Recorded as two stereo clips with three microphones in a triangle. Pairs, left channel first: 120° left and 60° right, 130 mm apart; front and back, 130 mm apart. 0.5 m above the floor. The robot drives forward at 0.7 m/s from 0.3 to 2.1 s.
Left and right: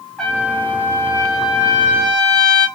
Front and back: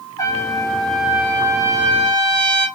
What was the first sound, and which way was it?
A trumpet, 40° left.